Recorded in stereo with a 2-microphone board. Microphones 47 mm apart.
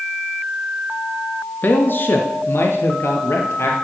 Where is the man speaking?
40° left (ahead or behind), 1.6 m; by 3.7 s 60° left (ahead or behind), 3 m.